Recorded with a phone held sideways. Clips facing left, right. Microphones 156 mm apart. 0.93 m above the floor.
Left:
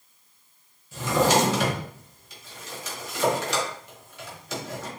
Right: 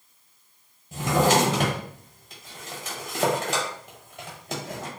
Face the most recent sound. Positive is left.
turn(degrees=-55)  # may be behind; listen again after turning